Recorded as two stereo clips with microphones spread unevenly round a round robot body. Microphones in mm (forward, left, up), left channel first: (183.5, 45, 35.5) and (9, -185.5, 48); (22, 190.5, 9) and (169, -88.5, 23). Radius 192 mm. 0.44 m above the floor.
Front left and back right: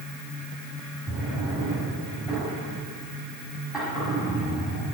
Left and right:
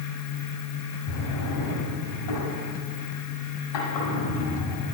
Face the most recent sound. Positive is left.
turn(degrees=145)